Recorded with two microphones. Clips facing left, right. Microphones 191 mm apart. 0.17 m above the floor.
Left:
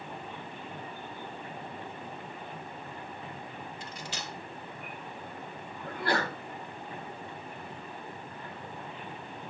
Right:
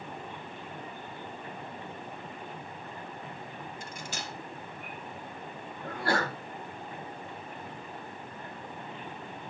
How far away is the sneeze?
About 2.5 m.